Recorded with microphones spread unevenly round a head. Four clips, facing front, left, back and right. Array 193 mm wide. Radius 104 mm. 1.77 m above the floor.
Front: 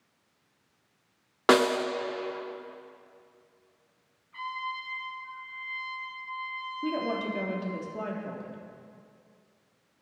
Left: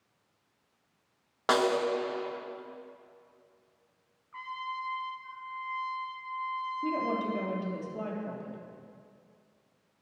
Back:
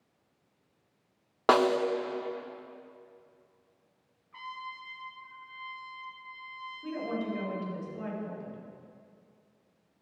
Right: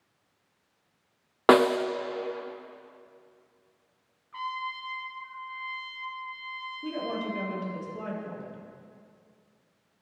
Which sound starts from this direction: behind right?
A trumpet, at 4.3 s.